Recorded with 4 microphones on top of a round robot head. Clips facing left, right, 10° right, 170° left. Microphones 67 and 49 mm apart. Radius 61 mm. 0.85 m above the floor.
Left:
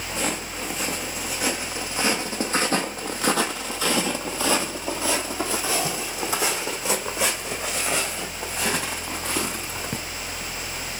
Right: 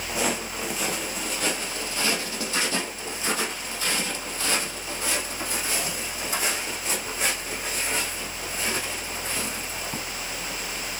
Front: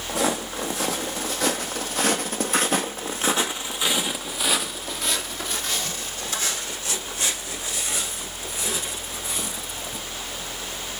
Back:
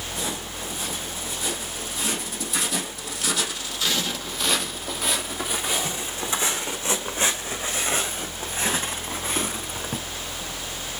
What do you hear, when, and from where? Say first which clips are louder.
0.1 s footsteps: right 1 dB, front 10 dB; 5° right, 2.5 m; by 10.0 s 125° left, 3.5 m